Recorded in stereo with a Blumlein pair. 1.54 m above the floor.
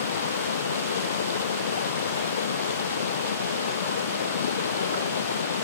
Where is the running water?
65° left.